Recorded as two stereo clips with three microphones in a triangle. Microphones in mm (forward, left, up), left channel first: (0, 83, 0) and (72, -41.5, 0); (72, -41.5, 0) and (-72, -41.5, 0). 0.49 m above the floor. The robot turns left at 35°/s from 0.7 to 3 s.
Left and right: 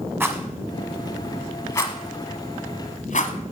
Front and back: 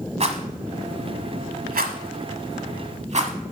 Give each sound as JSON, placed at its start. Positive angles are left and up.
{"t": 0.2, "sound": "a rattle", "azimuth_deg": -135, "distance_m": 1.0}